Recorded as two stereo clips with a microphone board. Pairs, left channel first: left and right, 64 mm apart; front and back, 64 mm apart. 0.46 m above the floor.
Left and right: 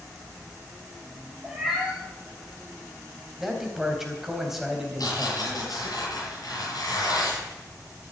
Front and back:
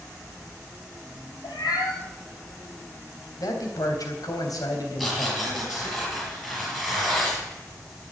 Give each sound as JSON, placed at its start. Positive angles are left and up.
{"t": 1.4, "sound": "a cat meowing", "azimuth_deg": -10, "distance_m": 6.0}
{"t": 3.4, "sound": "a man speaking", "azimuth_deg": -5, "distance_m": 3.5}
{"t": 5.0, "sound": "tearing paper", "azimuth_deg": 90, "distance_m": 7.0}